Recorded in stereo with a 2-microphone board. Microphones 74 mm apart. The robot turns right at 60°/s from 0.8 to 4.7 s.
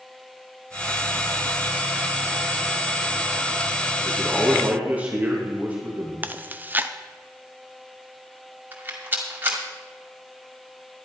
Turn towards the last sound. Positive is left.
turn(degrees=-25)  # may be behind; listen again after turning